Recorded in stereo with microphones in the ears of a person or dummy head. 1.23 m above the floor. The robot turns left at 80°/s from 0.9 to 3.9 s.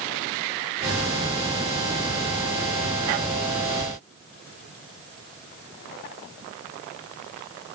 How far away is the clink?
No clink in this recording.